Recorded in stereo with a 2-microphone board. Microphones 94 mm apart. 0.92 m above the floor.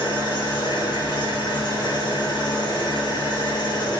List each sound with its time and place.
0.0 s an engine running: 45° left (ahead or behind), 0.9 m